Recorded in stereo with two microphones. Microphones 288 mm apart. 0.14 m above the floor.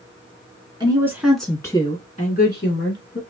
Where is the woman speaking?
15° right (ahead or behind), 1.4 m; by 3.2 s 50° left (ahead or behind), 1.6 m.